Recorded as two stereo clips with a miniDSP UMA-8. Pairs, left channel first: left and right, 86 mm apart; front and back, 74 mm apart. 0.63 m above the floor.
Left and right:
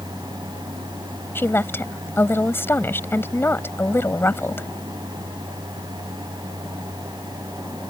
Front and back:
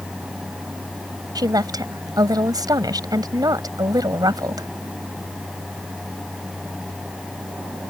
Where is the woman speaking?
155° left.